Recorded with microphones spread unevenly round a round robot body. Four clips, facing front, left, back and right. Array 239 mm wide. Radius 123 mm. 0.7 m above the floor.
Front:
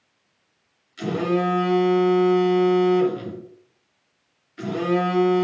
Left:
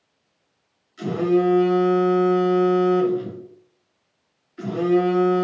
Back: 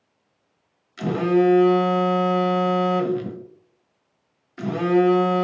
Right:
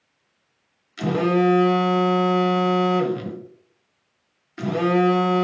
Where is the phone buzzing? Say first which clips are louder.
Even, back 4 dB; 120° right, 0.8 m.